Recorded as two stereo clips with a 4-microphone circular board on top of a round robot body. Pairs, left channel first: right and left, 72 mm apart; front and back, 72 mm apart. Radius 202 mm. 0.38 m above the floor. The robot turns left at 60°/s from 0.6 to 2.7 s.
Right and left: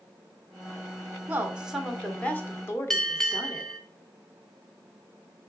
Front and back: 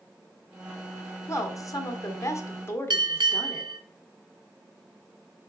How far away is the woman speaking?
About 1.5 m.